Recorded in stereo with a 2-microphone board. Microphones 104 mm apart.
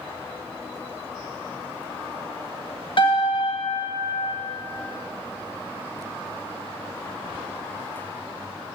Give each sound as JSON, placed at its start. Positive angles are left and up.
{"t": 3.0, "sound": "a piano", "side_deg": 60, "distance_m": 1.9}